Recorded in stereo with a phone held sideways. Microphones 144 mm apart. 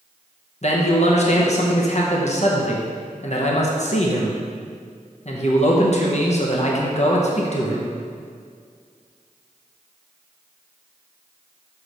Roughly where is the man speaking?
Left.